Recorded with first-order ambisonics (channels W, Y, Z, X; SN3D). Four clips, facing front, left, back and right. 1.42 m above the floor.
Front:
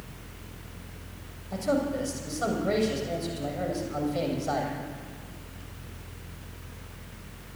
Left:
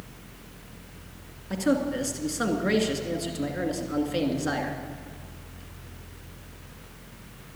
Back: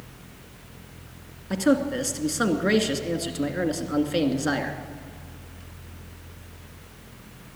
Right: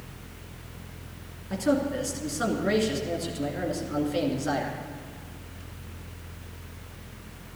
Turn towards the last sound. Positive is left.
turn(degrees=165)